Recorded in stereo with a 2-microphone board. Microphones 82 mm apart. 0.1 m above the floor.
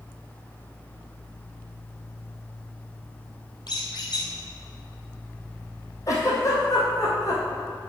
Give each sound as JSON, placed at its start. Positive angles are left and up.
{"t": 3.7, "sound": "a squeak", "side_deg": 65, "distance_m": 2.5}
{"t": 6.1, "sound": "a giggle", "side_deg": 40, "distance_m": 2.5}